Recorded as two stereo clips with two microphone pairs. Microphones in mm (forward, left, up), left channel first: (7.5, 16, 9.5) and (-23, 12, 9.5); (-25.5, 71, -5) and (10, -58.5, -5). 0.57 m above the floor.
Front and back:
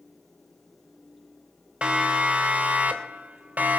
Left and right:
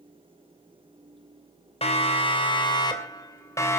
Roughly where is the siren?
Behind left.